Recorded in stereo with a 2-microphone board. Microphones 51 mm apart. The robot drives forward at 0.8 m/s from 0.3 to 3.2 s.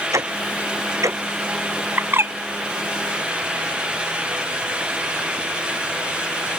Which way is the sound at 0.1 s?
90° right.